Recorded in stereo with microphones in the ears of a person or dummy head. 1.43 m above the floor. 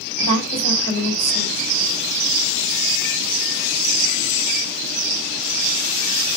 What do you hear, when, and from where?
0.2 s a woman speaking: 85° left, 7 m